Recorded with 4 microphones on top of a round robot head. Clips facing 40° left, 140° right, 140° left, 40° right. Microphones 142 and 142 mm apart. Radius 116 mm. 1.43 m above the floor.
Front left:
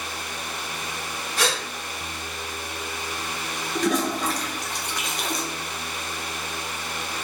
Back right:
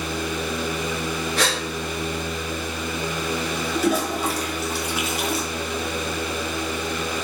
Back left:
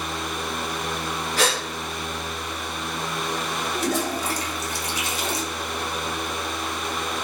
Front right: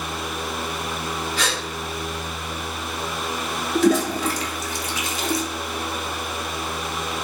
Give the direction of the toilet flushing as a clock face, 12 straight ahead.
2 o'clock.